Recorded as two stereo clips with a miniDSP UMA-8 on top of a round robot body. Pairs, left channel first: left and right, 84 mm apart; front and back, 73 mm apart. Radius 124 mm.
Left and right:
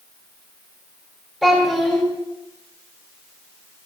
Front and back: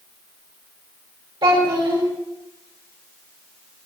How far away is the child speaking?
About 2.5 m.